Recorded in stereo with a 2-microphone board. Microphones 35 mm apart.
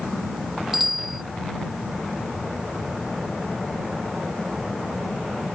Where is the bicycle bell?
5° right (ahead or behind).